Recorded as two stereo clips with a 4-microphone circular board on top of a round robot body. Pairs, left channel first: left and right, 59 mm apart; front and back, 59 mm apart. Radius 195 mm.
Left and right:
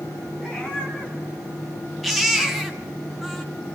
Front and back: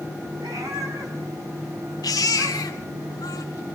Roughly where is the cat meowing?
Behind.